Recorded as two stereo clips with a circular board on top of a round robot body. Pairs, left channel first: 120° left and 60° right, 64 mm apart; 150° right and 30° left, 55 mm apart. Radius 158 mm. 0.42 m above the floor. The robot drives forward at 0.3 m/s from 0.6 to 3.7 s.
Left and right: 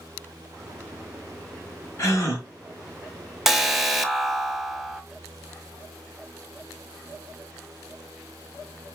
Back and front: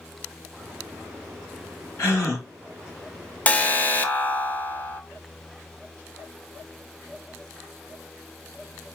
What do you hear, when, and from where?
2.0 s a gasp: 165° left, 1.5 m
3.5 s an alarm: 135° right, 0.8 m; by 5.0 s 145° right, 0.8 m